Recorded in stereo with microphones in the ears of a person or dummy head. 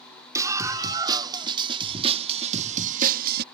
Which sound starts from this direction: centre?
A scream, at 0.3 s.